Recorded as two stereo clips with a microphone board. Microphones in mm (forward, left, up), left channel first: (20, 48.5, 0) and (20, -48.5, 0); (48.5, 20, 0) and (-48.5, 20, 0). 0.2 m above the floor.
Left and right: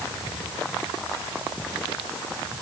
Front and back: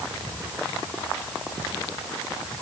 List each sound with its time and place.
Only background noise.